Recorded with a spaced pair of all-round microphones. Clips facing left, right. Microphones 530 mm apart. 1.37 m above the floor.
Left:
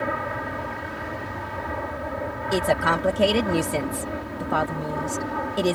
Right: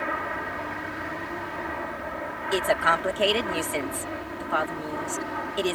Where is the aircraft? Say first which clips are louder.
Left 4 dB; 60° left (ahead or behind); by 5.8 s 65° left (ahead or behind).